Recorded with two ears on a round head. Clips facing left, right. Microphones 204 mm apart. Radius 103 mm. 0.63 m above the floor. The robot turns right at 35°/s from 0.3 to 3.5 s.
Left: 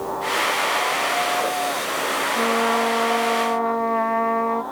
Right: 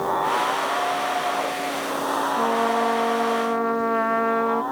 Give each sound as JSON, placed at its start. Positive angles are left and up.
{"t": 2.4, "sound": "a trumpet", "azimuth_deg": 160, "distance_m": 0.8}